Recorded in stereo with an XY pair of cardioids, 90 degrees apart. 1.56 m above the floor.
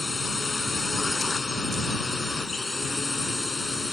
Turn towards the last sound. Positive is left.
turn(degrees=20)